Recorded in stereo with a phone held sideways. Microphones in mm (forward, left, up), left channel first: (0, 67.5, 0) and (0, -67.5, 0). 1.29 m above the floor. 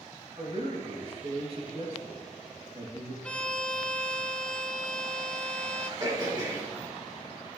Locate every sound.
0.4 s a man speaking: 45° right (ahead or behind), 2.5 m
3.2 s a violin: 10° left (ahead or behind), 1.1 m
6.0 s throat clearing: 30° right (ahead or behind), 3.5 m